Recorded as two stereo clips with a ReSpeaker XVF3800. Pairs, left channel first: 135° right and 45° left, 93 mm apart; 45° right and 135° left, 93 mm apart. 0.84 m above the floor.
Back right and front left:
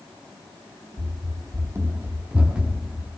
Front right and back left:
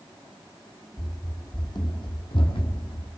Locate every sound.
1.0 s running footsteps: 5° left, 2 m; by 3.1 s 45° right, 2.5 m